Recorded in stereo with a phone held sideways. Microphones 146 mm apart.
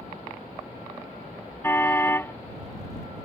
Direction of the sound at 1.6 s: 15° left (ahead or behind).